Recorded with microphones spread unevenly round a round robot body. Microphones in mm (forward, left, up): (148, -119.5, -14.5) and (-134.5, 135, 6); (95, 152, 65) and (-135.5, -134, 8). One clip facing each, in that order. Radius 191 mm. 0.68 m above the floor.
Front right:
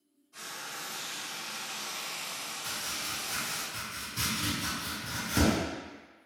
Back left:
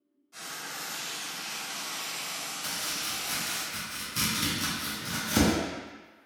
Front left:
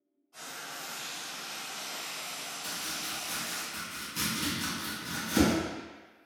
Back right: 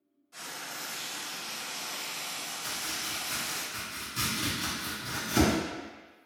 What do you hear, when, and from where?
0.3 s frying: 160° right, 1.1 m
2.6 s chopping: 140° left, 0.9 m